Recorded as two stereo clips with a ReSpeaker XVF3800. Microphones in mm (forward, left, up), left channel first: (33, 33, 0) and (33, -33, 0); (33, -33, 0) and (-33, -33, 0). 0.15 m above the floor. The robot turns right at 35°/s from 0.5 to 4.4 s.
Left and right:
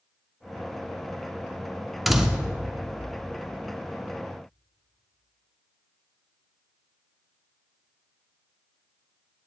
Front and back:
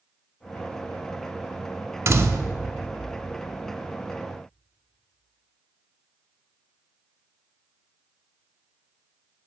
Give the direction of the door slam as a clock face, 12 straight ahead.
6 o'clock.